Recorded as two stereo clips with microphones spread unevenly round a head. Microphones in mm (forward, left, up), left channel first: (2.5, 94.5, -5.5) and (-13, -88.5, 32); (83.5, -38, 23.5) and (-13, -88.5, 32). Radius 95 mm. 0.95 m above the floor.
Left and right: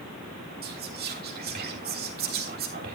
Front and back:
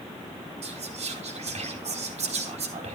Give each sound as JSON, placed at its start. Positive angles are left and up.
{"t": 0.6, "sound": "whispering", "azimuth_deg": -135, "distance_m": 3.5}